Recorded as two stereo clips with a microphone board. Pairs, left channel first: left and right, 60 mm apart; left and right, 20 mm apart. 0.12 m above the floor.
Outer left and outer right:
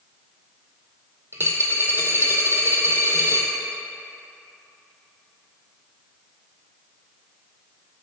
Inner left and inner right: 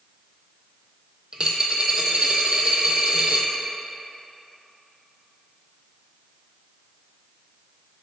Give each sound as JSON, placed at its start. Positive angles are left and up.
{"t": 1.3, "sound": "a dropped coin", "side_deg": -45, "distance_m": 0.8}